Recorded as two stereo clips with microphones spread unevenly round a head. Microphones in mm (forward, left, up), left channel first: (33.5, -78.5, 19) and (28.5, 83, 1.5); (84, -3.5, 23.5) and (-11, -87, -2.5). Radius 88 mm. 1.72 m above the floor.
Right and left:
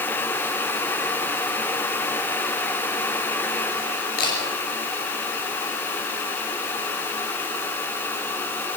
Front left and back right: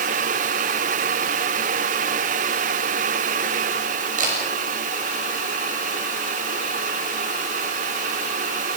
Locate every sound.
4.2 s a camera shutter: 125° right, 9 m